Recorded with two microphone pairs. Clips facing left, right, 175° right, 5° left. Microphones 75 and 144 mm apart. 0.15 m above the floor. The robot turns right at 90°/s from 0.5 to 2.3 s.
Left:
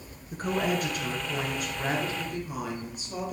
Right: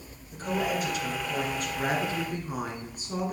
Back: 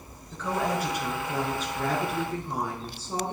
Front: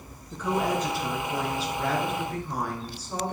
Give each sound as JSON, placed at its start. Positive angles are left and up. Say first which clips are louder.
{"t": 0.3, "sound": "a woman speaking", "louder": "left 1 dB, front 2 dB", "azimuth_deg": 80, "distance_m": 2.0}